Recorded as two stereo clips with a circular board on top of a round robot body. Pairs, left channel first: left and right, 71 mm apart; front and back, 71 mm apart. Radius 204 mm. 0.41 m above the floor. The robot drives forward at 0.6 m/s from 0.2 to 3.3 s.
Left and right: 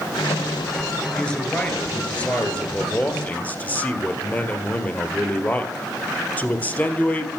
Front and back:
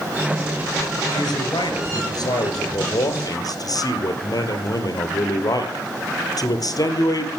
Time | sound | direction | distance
1.1 | a man speaking | 15° left | 3 m